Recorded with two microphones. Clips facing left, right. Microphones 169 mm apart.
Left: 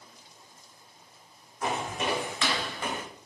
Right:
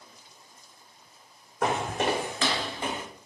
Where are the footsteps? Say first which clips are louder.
Right 4 dB; 75° right (ahead or behind), 0.6 m; by 3.0 s 20° right (ahead or behind), 0.9 m.